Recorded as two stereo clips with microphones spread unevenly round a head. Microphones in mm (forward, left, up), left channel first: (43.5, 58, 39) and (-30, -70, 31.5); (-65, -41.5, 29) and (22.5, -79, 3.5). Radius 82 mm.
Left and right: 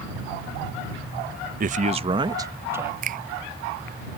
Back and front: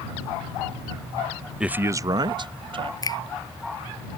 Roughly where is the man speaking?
Right.